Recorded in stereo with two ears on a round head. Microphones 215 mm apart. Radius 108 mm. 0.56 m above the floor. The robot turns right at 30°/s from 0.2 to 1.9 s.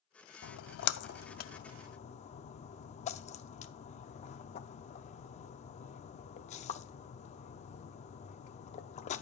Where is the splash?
55° left (ahead or behind), 0.5 m; by 9.2 s 30° left (ahead or behind), 0.5 m.